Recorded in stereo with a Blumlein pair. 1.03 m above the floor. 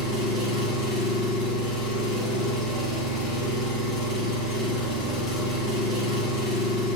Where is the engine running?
30° left, 3.5 m.